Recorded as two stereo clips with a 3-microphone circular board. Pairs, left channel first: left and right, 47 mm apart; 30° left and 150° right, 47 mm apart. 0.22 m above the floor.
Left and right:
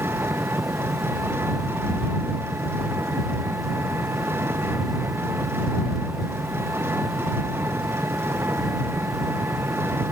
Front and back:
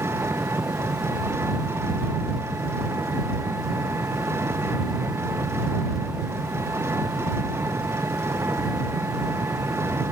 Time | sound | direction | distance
0.0 | an engine running | 125° right | ?